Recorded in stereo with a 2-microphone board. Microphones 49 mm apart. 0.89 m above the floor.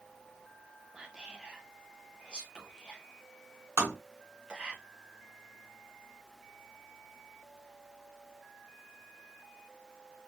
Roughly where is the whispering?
Centre.